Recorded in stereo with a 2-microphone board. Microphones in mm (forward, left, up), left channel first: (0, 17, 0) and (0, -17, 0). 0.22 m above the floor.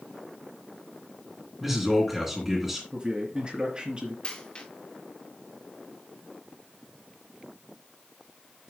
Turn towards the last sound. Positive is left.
turn(degrees=25)  # may be behind; listen again after turning